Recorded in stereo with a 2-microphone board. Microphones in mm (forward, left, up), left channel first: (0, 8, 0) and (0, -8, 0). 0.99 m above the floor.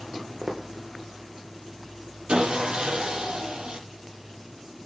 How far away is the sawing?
About 6 m.